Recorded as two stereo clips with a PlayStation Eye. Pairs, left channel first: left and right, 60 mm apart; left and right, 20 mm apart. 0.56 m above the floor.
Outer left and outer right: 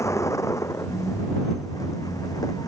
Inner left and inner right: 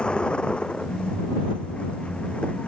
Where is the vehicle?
55° left (ahead or behind); by 2.7 s 85° left.